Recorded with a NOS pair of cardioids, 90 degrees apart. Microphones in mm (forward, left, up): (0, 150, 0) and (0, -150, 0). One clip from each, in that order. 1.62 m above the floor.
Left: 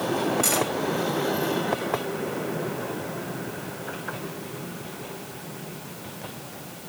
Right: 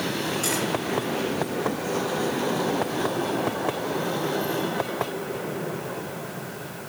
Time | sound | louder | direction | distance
0.4 | cutlery clinking | left 2 dB | 30° left | 5.5 m